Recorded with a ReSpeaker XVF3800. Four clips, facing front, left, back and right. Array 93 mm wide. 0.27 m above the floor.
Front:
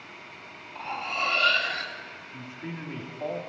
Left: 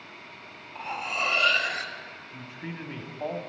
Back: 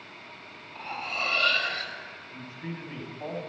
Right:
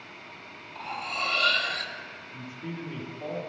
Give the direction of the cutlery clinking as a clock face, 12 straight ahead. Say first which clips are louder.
Left 2 dB, front 3 dB; 9 o'clock.